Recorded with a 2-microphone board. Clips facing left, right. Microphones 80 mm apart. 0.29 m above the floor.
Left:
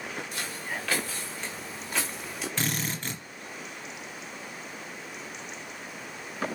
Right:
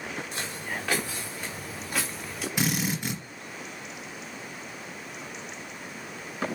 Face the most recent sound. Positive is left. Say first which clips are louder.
# right 5 dB
turn(degrees=-15)  # may be behind; listen again after turning